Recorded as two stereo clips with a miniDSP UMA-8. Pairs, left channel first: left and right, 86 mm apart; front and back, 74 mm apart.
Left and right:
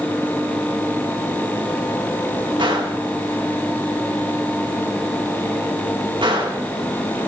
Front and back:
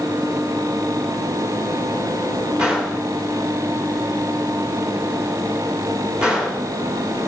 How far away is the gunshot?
About 2.5 m.